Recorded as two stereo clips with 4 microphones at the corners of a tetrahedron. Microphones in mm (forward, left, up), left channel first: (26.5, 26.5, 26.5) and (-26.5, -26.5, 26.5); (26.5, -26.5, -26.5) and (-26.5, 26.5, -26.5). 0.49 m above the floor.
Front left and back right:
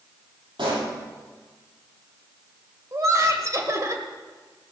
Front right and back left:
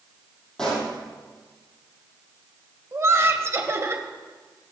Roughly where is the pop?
Behind right.